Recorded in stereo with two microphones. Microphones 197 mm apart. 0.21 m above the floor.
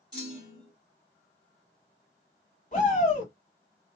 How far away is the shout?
About 1.6 m.